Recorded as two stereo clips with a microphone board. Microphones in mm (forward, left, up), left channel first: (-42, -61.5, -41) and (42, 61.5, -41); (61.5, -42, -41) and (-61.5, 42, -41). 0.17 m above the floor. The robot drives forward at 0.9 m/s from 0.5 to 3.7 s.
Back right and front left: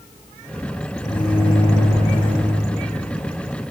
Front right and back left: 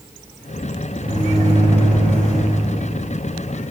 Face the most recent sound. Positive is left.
turn(degrees=-175)